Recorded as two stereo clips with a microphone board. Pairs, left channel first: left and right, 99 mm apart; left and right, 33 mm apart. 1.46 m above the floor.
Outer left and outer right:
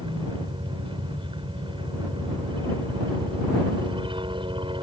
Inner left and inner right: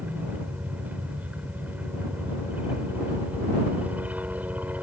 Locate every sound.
0.0 s a helicopter: 55° right (ahead or behind)